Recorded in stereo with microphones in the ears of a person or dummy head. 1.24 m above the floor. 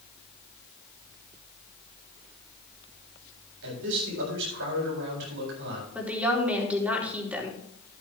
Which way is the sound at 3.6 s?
75° right (ahead or behind).